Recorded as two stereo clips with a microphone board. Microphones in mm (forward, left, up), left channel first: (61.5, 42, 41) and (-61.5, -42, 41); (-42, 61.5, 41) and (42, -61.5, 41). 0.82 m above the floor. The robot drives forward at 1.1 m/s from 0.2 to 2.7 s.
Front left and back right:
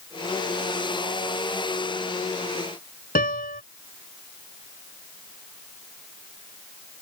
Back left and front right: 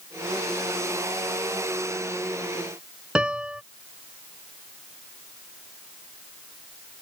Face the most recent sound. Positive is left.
turn(degrees=30)